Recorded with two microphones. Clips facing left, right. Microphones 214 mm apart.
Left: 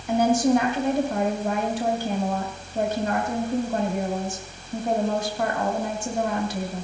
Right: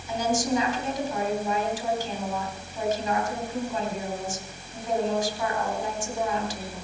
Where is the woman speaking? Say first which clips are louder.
Left 7 dB; 65° left (ahead or behind), 3 m.